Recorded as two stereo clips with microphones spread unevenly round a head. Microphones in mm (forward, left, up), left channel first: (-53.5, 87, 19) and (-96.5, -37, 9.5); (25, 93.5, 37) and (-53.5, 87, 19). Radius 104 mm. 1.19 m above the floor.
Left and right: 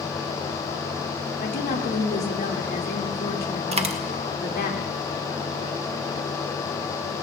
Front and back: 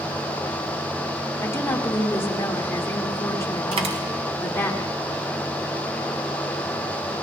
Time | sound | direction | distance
1.4 | a woman speaking | 65° left | 2.5 m
3.7 | a dropped coin | 150° right | 1.1 m